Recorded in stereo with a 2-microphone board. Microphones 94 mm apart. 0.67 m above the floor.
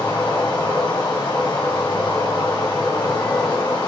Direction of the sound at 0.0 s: 45° left (ahead or behind).